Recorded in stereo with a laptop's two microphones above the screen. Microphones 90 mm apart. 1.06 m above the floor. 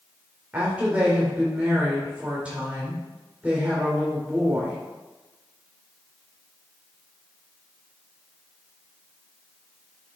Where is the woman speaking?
15° right (ahead or behind), 3 m.